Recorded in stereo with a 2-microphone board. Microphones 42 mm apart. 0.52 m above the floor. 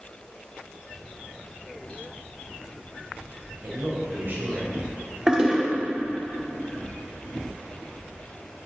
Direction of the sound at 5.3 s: 15° right (ahead or behind).